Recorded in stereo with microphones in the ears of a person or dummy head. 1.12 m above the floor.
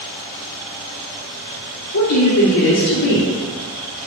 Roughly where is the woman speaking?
Left.